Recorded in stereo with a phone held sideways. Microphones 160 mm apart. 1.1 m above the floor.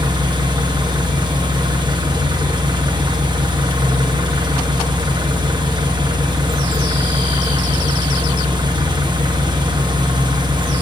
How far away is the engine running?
About 1.1 m.